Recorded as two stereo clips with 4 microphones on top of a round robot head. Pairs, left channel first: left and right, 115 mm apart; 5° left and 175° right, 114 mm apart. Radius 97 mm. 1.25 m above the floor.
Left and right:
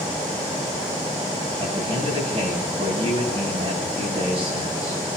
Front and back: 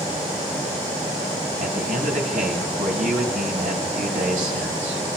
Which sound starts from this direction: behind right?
A man speaking, at 1.6 s.